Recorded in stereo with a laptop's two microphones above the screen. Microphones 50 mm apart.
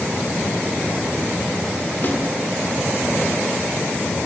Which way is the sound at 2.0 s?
40° left (ahead or behind).